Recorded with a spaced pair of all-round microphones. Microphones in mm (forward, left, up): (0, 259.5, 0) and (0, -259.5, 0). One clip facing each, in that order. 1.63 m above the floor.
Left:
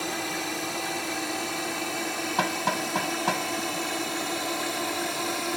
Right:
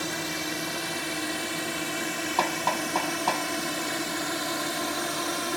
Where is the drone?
40° right (ahead or behind); by 5.6 s 35° right (ahead or behind).